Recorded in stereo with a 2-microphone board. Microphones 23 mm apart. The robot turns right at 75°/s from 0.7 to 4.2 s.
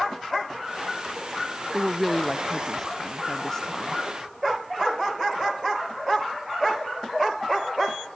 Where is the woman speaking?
10° right (ahead or behind), 0.7 m; by 4.0 s 15° left (ahead or behind), 0.7 m.